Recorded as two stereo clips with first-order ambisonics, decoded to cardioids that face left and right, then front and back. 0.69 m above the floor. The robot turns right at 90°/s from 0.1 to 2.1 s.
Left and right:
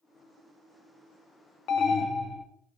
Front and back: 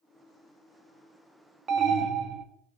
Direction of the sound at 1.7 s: 130° left.